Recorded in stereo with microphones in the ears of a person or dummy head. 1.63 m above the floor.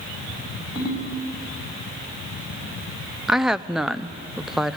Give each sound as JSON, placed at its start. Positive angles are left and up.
{"t": 0.8, "sound": "a ringtone", "side_deg": 30, "distance_m": 7.0}
{"t": 3.3, "sound": "a woman speaking", "side_deg": -5, "distance_m": 0.5}